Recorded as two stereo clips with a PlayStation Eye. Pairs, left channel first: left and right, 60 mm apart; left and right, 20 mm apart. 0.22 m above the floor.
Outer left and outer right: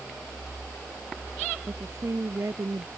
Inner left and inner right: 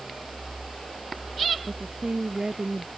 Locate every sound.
1.7 s a woman speaking: 50° right (ahead or behind); by 2.9 s 60° right (ahead or behind)